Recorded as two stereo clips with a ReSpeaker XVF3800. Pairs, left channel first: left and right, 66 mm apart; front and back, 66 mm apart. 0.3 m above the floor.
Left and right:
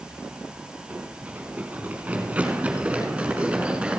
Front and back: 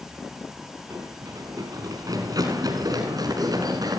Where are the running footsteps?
155° right, 5 m; by 4.0 s 165° right, 7 m.